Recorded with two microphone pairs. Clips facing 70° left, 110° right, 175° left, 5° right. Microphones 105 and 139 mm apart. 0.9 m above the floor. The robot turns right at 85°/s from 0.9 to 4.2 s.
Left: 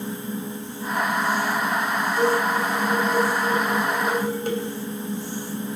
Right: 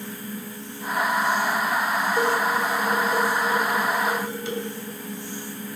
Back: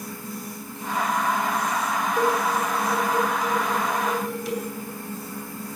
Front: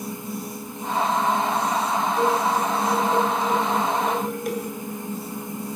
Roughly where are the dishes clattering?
Behind right.